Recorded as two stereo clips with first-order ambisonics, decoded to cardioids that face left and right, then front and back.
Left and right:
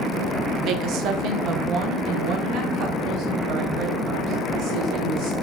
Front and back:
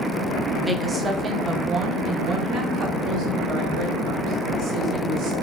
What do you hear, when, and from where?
0.6 s a woman speaking: 90° right, 0.8 m; by 5.3 s 125° right, 4 m